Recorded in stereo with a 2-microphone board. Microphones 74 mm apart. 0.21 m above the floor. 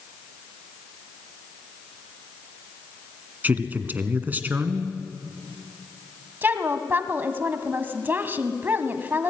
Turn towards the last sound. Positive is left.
turn(degrees=-25)  # may be behind; listen again after turning